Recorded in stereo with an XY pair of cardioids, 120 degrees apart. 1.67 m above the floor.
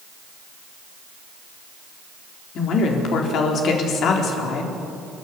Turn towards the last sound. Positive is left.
turn(degrees=60)